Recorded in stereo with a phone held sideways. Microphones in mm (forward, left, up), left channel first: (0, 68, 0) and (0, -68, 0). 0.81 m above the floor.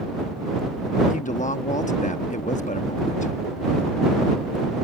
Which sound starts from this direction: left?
A woman speaking, at 1.1 s.